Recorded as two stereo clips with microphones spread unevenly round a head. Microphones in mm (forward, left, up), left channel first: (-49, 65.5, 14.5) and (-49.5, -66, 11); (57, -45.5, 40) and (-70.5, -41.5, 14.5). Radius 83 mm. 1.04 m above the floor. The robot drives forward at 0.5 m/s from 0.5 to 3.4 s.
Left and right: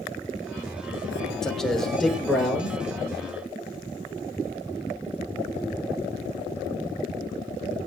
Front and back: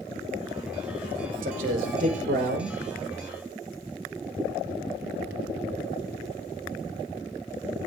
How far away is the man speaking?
About 3.5 m.